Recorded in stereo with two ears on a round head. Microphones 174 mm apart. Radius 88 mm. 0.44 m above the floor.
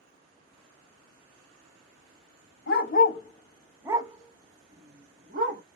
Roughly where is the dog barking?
Left.